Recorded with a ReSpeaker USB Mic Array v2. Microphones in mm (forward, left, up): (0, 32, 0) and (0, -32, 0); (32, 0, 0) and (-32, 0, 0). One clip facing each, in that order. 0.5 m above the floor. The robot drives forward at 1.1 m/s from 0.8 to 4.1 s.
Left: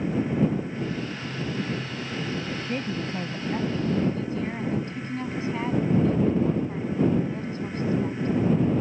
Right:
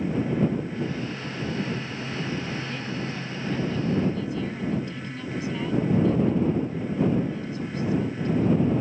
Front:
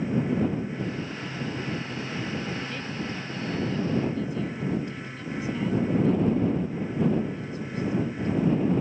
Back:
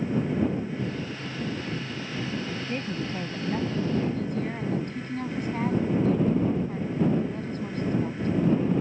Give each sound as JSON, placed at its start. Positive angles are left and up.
{"t": 2.7, "sound": "a woman speaking", "azimuth_deg": 130}